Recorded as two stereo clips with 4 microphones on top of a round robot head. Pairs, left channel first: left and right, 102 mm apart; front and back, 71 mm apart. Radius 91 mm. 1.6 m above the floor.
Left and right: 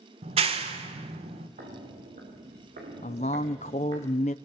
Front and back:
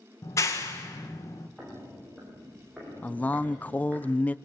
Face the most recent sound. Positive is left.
turn(degrees=65)